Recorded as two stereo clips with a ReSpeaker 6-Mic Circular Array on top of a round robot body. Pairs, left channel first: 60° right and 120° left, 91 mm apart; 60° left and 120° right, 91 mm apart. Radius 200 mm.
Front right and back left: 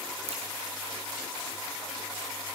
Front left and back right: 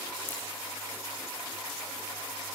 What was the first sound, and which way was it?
A crack, 130° left.